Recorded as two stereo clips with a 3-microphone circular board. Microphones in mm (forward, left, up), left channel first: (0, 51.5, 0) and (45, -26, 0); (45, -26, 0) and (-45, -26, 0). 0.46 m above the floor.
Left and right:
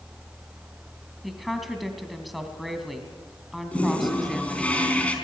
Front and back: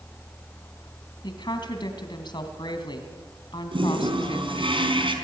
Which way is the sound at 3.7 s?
165° right.